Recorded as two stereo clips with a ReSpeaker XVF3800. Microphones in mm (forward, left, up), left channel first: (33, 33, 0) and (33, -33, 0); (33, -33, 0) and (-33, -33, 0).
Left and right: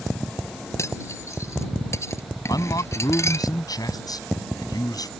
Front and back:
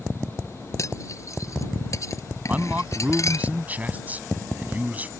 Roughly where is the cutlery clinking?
Ahead left.